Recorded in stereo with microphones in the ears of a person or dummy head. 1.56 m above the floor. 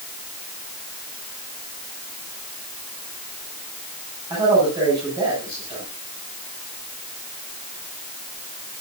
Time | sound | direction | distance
4.3 | a man speaking | 25° right (ahead or behind) | 7.5 m